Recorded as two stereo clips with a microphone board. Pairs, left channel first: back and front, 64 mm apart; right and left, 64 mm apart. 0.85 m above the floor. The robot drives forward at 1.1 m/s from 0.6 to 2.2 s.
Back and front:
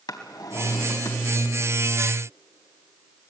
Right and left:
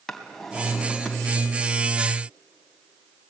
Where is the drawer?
175° right, 2 m.